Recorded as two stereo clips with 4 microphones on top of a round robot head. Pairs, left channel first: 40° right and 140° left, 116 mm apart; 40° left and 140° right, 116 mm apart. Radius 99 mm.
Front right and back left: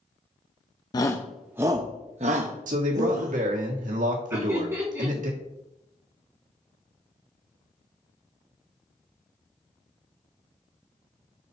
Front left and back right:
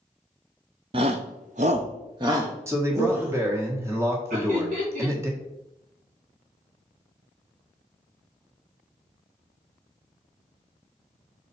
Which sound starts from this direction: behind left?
A man speaking, at 2.7 s.